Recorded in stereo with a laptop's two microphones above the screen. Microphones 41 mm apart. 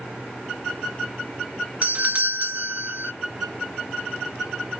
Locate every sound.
1.8 s a doorbell: 35° right (ahead or behind)